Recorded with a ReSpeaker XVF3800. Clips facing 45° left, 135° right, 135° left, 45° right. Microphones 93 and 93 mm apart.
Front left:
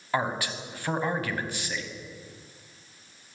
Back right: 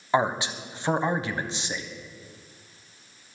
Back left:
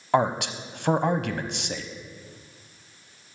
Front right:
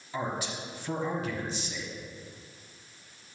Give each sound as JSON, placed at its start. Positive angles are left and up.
{"t": 0.1, "sound": "a man speaking", "azimuth_deg": 155, "distance_m": 0.9}